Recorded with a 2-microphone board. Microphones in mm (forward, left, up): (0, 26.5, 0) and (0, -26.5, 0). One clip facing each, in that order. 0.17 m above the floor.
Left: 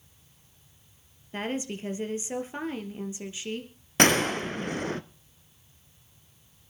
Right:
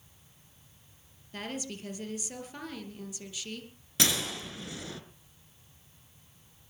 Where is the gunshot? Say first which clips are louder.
Left 10 dB; 50° left (ahead or behind), 0.7 m.